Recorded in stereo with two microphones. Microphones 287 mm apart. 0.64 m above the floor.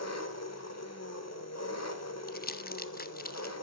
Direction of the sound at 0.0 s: 60° left (ahead or behind).